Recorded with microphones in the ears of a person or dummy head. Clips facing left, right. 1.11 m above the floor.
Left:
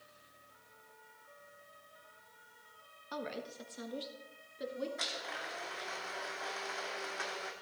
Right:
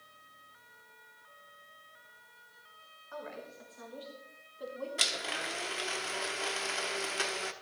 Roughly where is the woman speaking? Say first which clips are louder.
Left 2 dB; left.